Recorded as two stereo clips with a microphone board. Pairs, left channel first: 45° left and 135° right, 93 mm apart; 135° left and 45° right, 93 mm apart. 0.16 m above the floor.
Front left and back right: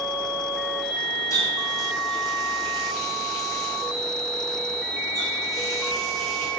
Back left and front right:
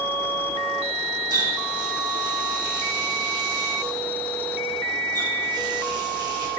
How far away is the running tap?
About 5 m.